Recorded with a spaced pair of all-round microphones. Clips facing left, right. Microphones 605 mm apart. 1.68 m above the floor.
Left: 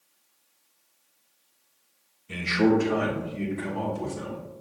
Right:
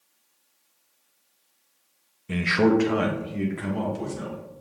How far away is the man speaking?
About 0.7 m.